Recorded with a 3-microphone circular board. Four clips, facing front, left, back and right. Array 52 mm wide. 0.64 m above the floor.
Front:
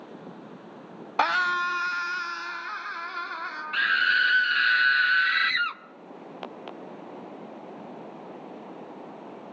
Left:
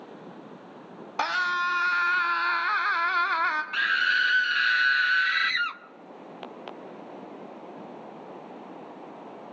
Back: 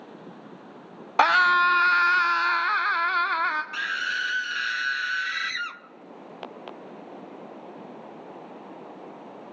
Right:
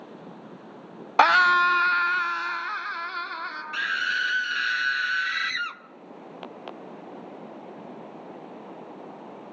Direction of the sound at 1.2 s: 115° right.